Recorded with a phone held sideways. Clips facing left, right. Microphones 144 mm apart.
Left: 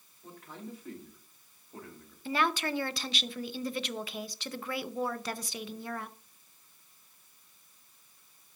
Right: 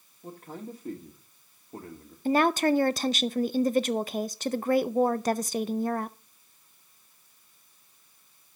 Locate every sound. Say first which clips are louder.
0.2 s a man speaking: right 5 dB; 35° right (ahead or behind), 1.6 m
2.2 s a woman speaking: right 8 dB; 45° right (ahead or behind), 0.5 m